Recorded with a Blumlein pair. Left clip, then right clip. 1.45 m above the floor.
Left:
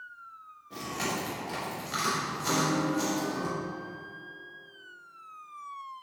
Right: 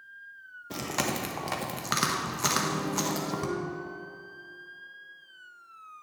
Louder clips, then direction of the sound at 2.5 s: Left 5 dB; 30° left.